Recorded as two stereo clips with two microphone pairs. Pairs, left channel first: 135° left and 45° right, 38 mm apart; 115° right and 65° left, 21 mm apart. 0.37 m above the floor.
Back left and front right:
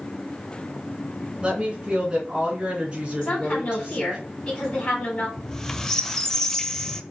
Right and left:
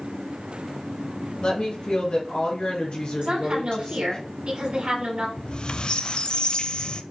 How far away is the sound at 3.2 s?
About 3.5 m.